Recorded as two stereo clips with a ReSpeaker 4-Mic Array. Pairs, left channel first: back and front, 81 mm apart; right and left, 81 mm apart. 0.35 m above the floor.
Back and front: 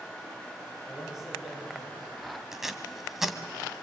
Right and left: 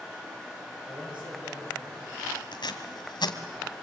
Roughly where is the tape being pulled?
Right.